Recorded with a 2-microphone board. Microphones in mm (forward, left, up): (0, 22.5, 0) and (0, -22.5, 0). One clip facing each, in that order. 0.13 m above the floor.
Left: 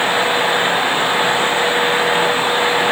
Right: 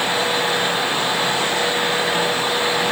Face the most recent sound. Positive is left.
No sound to turn to.